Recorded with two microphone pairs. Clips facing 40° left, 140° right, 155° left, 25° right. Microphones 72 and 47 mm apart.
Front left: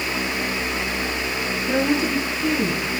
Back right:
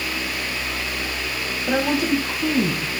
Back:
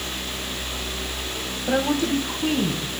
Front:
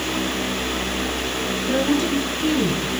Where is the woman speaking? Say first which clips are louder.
Back right 1 dB, front 1 dB; 170° right, 2.5 m; by 2.9 s 145° right, 3 m.